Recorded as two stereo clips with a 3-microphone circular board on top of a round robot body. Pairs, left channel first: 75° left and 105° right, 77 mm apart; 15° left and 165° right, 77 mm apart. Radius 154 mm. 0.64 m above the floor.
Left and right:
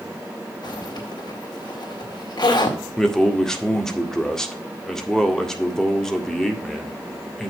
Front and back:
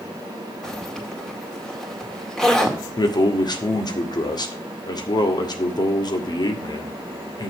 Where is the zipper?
100° left, 2.5 m.